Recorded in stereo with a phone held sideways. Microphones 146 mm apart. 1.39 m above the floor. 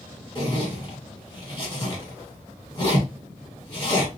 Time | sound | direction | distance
0.3 | a zipper | 35° left (ahead or behind) | 1.5 m